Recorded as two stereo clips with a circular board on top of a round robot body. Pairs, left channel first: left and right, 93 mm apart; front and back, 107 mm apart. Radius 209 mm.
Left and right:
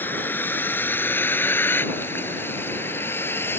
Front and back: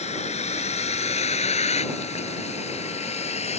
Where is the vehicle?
20° left.